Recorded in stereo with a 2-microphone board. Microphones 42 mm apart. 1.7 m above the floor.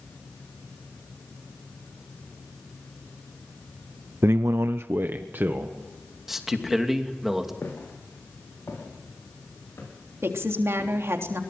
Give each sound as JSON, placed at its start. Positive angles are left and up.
{"t": 4.2, "sound": "a man speaking", "side_deg": -70, "distance_m": 0.5}
{"t": 6.3, "sound": "a man speaking", "side_deg": -5, "distance_m": 2.5}
{"t": 7.6, "sound": "footsteps", "side_deg": 65, "distance_m": 8.0}
{"t": 10.2, "sound": "a woman speaking", "side_deg": -75, "distance_m": 3.5}